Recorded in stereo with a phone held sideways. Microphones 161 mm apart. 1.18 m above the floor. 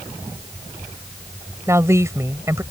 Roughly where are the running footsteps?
I don't hear running footsteps.